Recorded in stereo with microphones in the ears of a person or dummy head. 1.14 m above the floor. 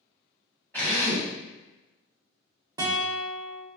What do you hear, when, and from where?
0.7 s a drill: 10° left (ahead or behind), 1.0 m
2.8 s a guitar: 20° right (ahead or behind), 0.6 m